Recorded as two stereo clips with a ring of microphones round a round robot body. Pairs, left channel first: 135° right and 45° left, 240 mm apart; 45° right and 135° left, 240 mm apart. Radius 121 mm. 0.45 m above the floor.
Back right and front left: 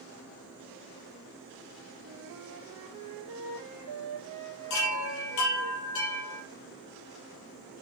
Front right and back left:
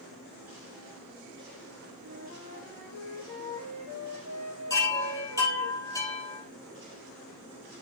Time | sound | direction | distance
2.0 | a flute | 80° left | 2.5 m
4.7 | a chime | 120° right | 4.5 m